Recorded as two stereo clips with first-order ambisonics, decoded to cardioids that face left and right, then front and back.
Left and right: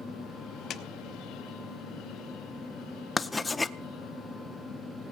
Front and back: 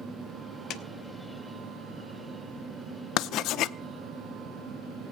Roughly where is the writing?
Ahead.